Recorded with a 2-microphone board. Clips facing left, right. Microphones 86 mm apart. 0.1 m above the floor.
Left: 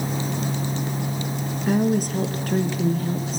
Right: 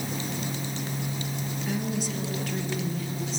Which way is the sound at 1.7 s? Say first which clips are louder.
Left 11 dB; 50° left (ahead or behind).